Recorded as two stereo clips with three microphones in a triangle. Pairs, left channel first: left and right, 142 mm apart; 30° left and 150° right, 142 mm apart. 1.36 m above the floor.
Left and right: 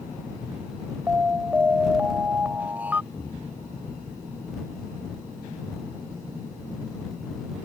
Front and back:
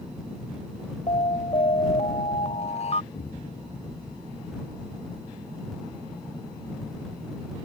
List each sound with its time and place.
1.1 s an alarm: 10° right
3.1 s an explosion: 15° left